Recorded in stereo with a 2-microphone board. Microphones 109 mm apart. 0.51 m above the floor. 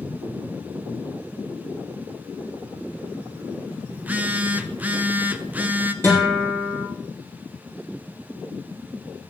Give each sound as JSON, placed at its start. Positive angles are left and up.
{"t": 3.9, "sound": "a phone buzzing", "side_deg": -15, "distance_m": 0.7}
{"t": 6.0, "sound": "a guitar", "side_deg": 25, "distance_m": 6.0}